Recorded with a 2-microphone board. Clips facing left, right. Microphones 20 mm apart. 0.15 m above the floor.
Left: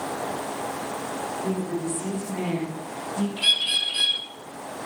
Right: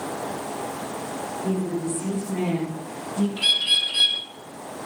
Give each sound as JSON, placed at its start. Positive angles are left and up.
{"t": 1.4, "sound": "a woman speaking", "side_deg": -5, "distance_m": 7.5}
{"t": 3.4, "sound": "a bird", "side_deg": -15, "distance_m": 3.5}